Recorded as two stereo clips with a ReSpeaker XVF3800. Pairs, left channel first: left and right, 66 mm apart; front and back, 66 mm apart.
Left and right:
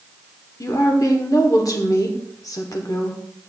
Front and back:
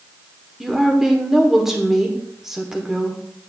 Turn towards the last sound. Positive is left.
turn(degrees=95)